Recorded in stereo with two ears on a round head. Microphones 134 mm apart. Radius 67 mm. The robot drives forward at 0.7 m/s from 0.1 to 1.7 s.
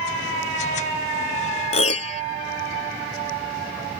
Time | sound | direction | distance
1.7 | a piano | 45° left (ahead or behind) | ?